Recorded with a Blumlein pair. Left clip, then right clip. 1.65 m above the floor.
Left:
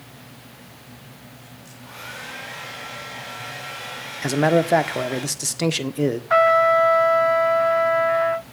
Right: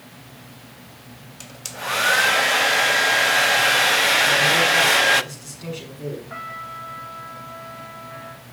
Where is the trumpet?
50° left, 0.6 m.